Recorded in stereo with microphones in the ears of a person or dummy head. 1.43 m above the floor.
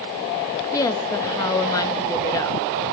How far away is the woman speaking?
About 2 m.